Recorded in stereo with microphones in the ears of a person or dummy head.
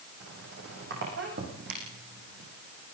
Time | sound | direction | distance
0.2 | a squeak | 65° right (ahead or behind) | 8.5 m